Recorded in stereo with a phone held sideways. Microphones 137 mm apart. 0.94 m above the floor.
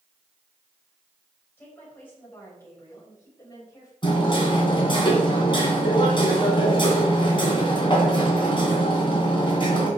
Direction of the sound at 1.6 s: 15° left (ahead or behind).